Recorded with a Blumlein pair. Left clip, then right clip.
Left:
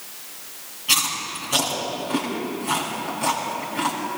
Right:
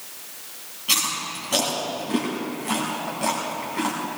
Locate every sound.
0.9 s chewing: 5° right, 5 m